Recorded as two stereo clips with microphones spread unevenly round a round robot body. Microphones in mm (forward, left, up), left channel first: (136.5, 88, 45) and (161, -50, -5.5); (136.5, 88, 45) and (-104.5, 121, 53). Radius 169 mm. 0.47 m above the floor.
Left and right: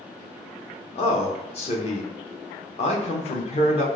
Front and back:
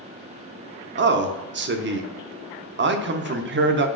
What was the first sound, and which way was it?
A man speaking, 160° left.